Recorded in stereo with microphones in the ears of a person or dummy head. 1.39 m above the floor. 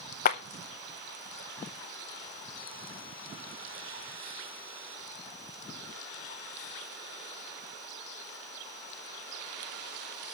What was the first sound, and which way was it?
A clap, 45° left (ahead or behind).